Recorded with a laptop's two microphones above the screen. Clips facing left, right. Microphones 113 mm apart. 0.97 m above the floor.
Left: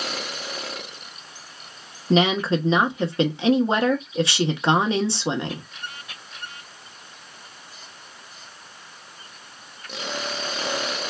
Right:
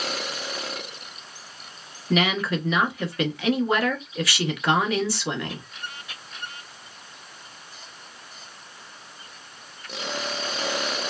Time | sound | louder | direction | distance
2.1 | a woman speaking | left 4 dB | 25° left (ahead or behind) | 0.7 m